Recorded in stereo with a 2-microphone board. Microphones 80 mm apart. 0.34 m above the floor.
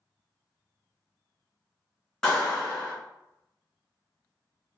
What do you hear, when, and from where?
2.2 s a clap: 15° left (ahead or behind), 1.4 m